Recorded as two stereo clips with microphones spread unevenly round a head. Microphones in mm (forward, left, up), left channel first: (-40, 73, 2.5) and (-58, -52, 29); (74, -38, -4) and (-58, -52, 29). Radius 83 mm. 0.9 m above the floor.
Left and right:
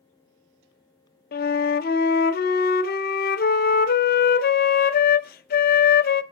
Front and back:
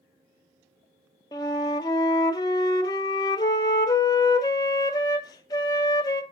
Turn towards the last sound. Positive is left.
turn(degrees=80)